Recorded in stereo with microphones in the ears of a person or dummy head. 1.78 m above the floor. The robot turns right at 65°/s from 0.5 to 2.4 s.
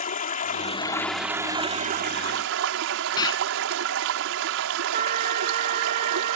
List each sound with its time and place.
0.0 s running water: 140° left; by 6.4 s 100° right
3.2 s an explosion: 25° left (ahead or behind)
4.9 s a trumpet: 50° right (ahead or behind)